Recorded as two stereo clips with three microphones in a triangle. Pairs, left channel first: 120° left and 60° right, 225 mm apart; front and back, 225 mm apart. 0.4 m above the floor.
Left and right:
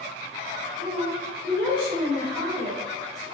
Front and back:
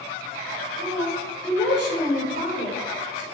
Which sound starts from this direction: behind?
A woman speaking, at 0.8 s.